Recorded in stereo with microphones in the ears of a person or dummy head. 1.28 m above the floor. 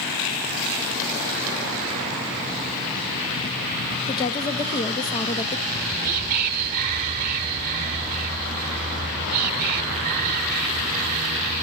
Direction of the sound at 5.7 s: 35° right (ahead or behind).